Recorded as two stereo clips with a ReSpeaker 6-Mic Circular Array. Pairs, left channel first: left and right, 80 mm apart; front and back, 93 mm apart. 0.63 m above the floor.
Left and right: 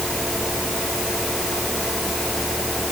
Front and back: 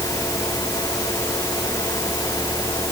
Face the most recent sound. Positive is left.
No sound to turn to.